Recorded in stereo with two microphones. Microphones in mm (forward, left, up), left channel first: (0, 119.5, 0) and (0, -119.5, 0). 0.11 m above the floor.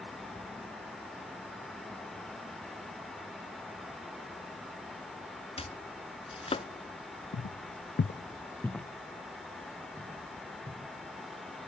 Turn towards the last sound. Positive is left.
turn(degrees=-15)  # may be behind; listen again after turning